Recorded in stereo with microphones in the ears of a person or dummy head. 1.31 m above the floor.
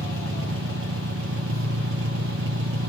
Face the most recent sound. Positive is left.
turn(degrees=-70)  # may be behind; listen again after turning